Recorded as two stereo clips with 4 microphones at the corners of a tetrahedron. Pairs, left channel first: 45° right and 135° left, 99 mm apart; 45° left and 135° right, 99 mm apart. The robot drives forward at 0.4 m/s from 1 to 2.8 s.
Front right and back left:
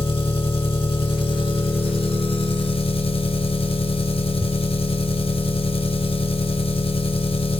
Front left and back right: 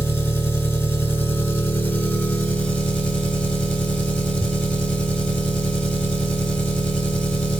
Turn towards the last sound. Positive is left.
turn(degrees=-35)